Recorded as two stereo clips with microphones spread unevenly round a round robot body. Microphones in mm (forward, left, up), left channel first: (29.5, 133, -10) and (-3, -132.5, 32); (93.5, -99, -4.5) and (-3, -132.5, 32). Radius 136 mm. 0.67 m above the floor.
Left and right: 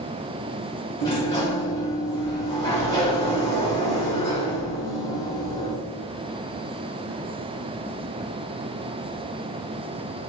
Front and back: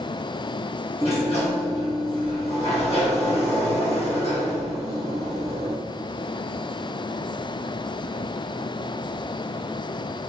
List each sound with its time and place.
1.0 s a sliding door: 5° left, 2.0 m